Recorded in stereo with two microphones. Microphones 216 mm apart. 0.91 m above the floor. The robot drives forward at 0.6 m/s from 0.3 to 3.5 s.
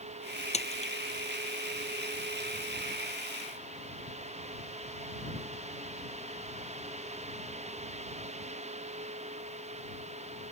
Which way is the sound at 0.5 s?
30° left (ahead or behind).